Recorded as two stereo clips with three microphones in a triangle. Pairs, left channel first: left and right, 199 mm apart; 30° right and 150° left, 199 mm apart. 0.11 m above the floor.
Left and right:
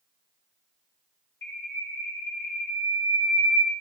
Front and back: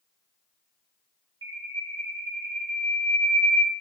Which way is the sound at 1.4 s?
140° left.